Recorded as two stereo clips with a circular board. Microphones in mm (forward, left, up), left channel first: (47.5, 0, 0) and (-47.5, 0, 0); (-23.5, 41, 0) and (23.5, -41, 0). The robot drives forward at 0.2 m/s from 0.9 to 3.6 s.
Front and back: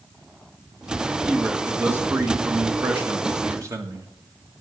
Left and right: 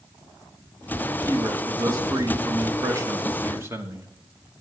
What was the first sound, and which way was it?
A man speaking, 105° right.